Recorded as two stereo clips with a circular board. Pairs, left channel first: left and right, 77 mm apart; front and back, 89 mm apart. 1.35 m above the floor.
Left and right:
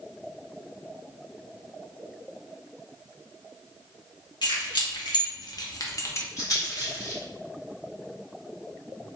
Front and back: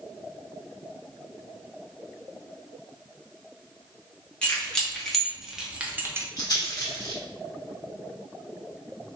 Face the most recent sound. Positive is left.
turn(degrees=45)